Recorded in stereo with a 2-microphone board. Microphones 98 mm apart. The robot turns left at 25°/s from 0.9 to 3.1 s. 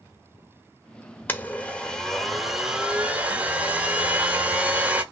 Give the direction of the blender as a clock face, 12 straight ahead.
11 o'clock.